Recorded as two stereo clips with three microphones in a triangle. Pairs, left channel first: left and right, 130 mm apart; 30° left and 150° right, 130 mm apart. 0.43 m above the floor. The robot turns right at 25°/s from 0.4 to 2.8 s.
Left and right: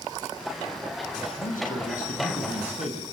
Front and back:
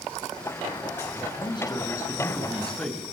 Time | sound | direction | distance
1.4 | a man speaking | 80° left | 6 m